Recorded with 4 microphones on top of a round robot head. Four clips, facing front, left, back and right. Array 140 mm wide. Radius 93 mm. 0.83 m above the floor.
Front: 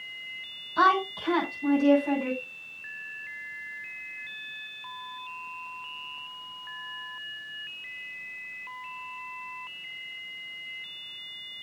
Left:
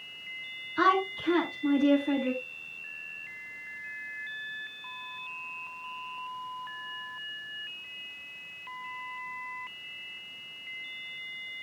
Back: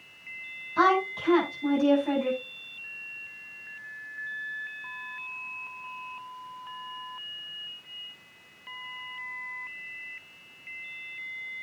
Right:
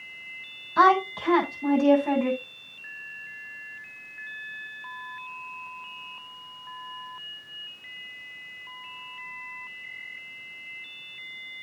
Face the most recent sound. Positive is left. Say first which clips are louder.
# right 6 dB, even
turn(degrees=-90)